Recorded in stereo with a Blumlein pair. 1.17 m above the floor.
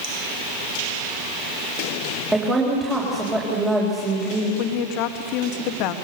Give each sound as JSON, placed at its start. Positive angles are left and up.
{"t": 2.3, "sound": "a woman speaking", "azimuth_deg": -10, "distance_m": 4.0}
{"t": 4.6, "sound": "a woman speaking", "azimuth_deg": 40, "distance_m": 1.6}